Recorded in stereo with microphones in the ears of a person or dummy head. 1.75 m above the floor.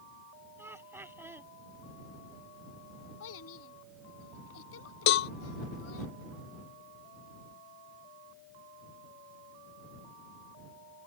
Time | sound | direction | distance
0.6 | laughter | 10° right (ahead or behind) | ?
3.2 | a child speaking | 75° left (ahead or behind) | ?
5.1 | a cowbell | 60° left (ahead or behind) | ?